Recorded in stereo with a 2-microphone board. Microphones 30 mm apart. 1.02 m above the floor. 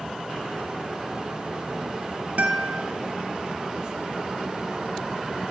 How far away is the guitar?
About 0.7 m.